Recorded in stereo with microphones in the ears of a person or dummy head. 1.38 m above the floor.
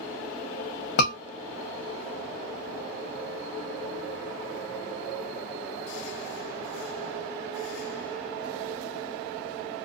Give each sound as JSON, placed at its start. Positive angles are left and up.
{"t": 1.0, "sound": "a scream", "side_deg": 60, "distance_m": 0.9}